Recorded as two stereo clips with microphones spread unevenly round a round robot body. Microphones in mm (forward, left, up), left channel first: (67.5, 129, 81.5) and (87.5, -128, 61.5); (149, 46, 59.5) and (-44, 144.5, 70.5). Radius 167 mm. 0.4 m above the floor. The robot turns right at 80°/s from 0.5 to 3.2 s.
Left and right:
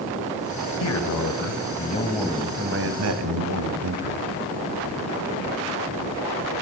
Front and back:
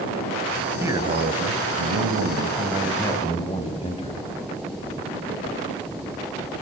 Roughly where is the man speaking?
Left.